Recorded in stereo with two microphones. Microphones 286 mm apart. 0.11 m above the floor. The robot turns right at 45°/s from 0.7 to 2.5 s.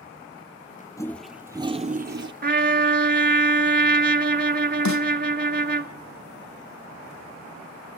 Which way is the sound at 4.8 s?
80° left.